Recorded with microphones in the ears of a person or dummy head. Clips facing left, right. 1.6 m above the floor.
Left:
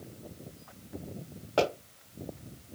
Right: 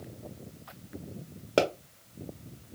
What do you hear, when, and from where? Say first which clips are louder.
1.6 s a pop: right 2 dB; 40° right (ahead or behind), 1.0 m